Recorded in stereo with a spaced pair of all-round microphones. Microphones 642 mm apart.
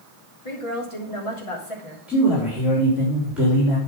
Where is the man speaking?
Centre (ahead or behind), 3.5 m.